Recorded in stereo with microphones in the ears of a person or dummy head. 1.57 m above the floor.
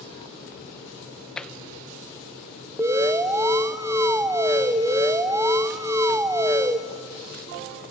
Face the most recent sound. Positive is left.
turn(degrees=-20)  # may be behind; listen again after turning